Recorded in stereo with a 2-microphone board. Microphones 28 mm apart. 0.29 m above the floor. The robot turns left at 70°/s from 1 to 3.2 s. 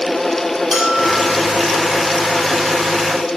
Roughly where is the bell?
Centre.